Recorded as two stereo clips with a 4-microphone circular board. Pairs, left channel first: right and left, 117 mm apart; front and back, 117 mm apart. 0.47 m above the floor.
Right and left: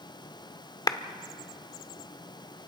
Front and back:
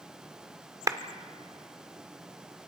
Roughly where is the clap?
Behind right.